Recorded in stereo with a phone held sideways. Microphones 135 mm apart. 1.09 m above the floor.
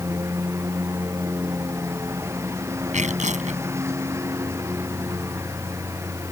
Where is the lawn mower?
20° right (ahead or behind).